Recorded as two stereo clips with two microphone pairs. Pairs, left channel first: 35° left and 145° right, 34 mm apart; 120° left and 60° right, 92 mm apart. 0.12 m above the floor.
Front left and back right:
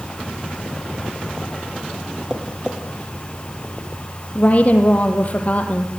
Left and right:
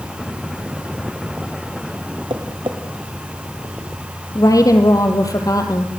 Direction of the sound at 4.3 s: 75° left.